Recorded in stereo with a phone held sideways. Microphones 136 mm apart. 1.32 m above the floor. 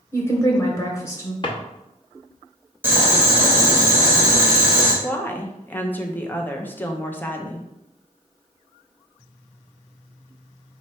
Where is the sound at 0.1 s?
20° left (ahead or behind), 0.8 m.